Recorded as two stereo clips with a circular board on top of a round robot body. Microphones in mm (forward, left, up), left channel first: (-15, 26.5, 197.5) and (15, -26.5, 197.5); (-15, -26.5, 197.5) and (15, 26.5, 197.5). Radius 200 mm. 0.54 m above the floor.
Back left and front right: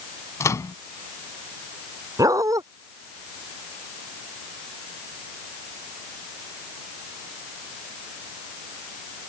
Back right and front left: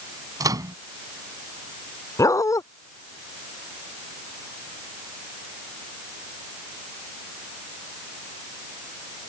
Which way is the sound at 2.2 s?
90° right.